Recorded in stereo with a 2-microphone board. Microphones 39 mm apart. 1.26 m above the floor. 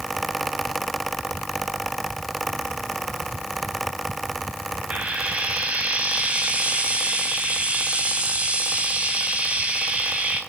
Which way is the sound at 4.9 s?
35° right (ahead or behind).